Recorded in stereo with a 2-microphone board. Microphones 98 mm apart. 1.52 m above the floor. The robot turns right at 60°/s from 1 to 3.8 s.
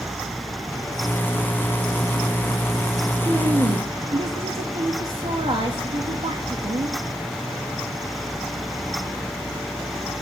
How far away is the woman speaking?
About 2 m.